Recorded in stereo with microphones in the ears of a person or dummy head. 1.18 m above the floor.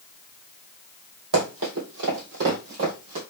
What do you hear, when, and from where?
1.3 s running footsteps: 60° right (ahead or behind), 2.5 m; by 3.2 s 45° right (ahead or behind), 2.5 m